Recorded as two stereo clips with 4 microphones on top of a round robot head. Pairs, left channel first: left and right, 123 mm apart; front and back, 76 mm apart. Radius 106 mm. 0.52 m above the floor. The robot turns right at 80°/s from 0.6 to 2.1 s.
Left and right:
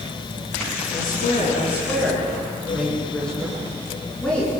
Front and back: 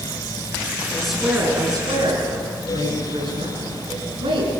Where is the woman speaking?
80° left, 8.5 m; by 4.5 s 175° left, 8.5 m.